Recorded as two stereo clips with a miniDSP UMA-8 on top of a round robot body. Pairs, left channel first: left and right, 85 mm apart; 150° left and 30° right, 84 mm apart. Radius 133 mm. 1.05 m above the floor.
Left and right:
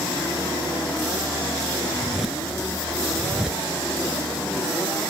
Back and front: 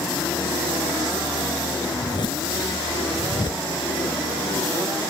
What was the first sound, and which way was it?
A zipper, 175° right.